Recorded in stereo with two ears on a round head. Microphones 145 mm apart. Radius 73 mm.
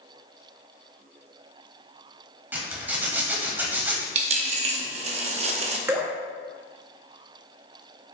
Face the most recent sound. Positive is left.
turn(degrees=-15)  # may be behind; listen again after turning